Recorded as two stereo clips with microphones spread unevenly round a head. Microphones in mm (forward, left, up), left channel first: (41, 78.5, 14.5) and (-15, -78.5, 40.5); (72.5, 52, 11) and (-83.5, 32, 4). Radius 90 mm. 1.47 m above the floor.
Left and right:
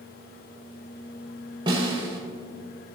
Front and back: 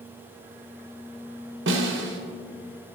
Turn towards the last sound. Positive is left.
turn(degrees=-175)